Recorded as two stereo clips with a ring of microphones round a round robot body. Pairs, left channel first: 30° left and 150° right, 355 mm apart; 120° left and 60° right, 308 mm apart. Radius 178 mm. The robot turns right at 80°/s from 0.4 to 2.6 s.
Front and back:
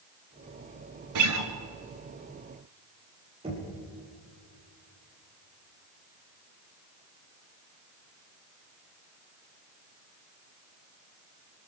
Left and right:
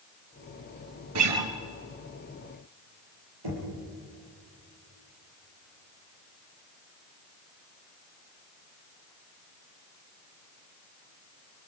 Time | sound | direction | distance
1.1 | a guitar | 110° right | 2.5 m
3.4 | knocking | 75° right | 9.5 m